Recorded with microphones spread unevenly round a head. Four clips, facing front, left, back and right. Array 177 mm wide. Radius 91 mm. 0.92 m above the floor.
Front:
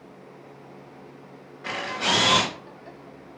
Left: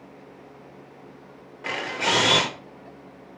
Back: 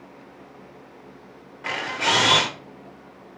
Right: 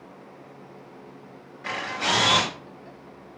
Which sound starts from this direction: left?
A camera shutter, at 1.6 s.